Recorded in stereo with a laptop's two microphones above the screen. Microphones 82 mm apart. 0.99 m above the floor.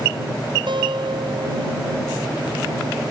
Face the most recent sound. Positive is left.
turn(degrees=-70)  # may be behind; listen again after turning